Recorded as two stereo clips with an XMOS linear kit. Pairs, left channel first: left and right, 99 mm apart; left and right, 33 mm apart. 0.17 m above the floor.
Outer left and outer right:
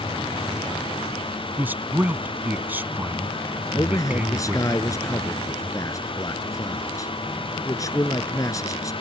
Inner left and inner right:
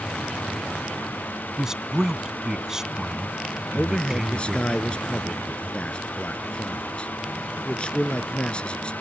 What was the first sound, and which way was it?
A man speaking, 15° right (ahead or behind).